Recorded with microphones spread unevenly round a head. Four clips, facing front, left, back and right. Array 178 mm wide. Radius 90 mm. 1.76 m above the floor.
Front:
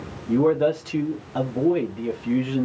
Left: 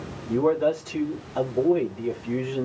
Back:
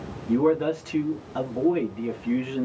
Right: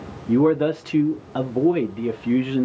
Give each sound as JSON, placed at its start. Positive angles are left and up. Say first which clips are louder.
{"t": 0.3, "sound": "a man speaking", "louder": "right 4 dB, front 2 dB", "azimuth_deg": -75, "distance_m": 0.9}